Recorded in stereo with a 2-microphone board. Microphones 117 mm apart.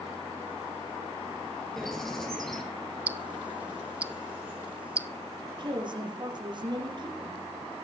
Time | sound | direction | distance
1.8 | a bird | 5° left (ahead or behind) | 2 m
3.1 | ticking | 10° right (ahead or behind) | 0.5 m
5.4 | a woman speaking | 40° right (ahead or behind) | 5 m